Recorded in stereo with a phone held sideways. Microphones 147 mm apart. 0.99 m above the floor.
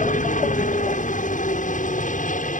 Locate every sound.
0.0 s a helicopter: 60° left (ahead or behind)